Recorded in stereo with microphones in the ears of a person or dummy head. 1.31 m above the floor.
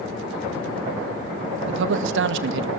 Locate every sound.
1.7 s a man speaking: 70° right (ahead or behind), 1.8 m